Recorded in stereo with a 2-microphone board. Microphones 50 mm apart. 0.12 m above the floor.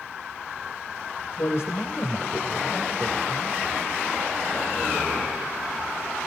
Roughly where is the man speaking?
Left.